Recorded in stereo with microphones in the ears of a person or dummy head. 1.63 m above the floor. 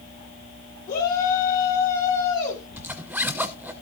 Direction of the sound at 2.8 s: 5° right (ahead or behind).